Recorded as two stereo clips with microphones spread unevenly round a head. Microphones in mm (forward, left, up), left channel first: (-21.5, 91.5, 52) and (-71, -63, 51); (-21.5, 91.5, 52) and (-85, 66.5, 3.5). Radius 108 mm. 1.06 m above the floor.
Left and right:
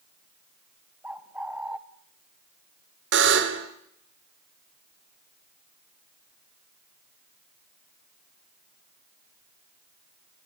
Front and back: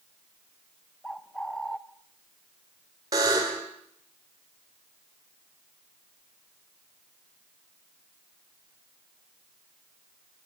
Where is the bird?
25° right, 0.5 m.